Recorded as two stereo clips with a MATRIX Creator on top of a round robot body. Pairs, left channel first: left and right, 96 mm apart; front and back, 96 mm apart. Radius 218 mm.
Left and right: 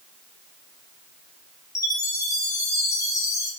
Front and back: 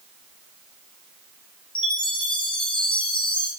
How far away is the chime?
About 1.1 m.